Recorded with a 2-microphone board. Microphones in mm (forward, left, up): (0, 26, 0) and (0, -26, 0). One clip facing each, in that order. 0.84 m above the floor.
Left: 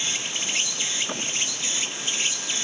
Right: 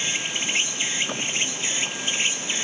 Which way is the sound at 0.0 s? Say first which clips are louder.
Right 3 dB; 25° right (ahead or behind).